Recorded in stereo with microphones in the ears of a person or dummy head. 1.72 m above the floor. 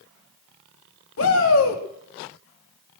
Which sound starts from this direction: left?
A shout, at 1.2 s.